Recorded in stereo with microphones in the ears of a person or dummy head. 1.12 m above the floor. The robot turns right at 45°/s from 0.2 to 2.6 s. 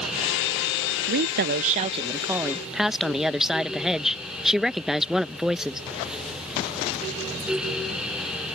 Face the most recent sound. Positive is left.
turn(degrees=-5)